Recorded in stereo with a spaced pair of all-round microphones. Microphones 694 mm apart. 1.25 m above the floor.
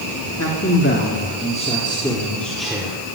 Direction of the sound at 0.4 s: 20° left (ahead or behind).